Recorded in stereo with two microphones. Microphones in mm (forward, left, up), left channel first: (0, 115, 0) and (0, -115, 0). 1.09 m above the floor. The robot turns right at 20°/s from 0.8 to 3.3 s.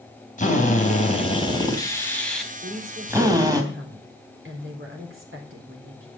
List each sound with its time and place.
0.4 s a drill: 145° left, 3 m; by 3.6 s 165° right, 3 m
2.6 s a woman speaking: 50° right (ahead or behind), 4 m; by 6.1 s 65° right (ahead or behind), 4 m